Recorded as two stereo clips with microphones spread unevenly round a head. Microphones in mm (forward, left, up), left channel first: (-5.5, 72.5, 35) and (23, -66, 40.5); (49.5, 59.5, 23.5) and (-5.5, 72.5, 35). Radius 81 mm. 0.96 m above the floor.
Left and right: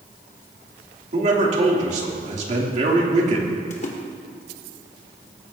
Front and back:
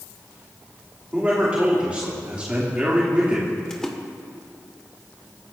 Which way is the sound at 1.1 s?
115° right.